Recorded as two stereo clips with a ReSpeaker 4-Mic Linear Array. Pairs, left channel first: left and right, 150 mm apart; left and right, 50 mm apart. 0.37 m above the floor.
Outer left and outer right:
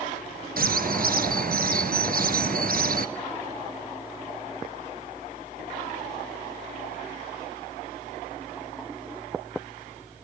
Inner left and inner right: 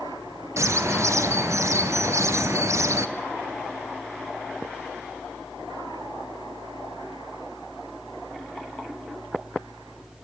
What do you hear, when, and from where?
0.6 s a bird: 80° right, 1.1 m